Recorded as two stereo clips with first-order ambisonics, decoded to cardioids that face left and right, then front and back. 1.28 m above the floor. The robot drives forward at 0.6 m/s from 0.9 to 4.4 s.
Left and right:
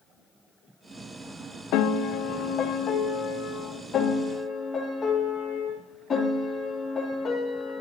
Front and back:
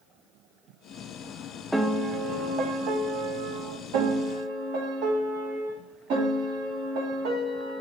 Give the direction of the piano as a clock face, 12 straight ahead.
9 o'clock.